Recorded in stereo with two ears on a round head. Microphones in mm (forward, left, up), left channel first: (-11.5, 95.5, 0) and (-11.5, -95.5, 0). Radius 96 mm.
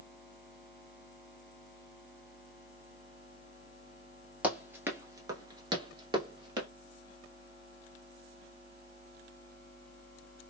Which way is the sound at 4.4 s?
5° right (ahead or behind).